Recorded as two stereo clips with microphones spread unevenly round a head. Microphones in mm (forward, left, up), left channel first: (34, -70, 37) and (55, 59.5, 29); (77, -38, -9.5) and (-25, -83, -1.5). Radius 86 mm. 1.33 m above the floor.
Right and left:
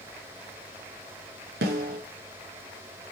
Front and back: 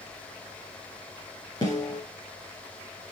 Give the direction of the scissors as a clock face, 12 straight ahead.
I don't hear scissors.